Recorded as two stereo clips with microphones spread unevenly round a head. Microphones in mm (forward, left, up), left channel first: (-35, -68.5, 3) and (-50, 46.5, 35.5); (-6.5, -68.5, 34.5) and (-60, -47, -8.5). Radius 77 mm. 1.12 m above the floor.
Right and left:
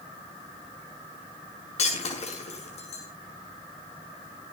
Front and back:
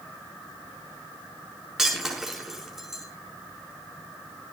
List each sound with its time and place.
1.8 s breaking glass: 115° right, 6.5 m